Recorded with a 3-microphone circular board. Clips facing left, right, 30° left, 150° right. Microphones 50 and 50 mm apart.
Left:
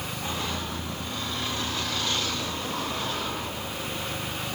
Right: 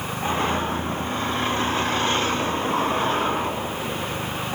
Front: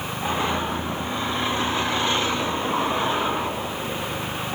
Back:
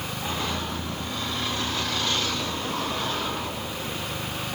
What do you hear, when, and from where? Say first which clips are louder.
0.0 s a vehicle: right 8 dB, front 5 dB; 35° right